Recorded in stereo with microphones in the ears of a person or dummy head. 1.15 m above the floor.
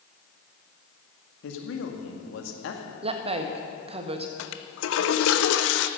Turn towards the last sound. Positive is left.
turn(degrees=70)  # may be behind; listen again after turning